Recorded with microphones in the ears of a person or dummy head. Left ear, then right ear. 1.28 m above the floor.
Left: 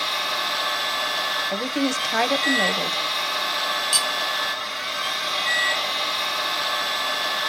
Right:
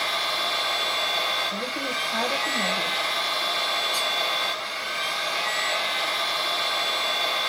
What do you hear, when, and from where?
0.0 s a machine running: 5° right (ahead or behind), 1.8 m
1.5 s a woman speaking: 65° left (ahead or behind), 0.6 m
3.9 s cutlery clinking: 60° left (ahead or behind), 0.6 m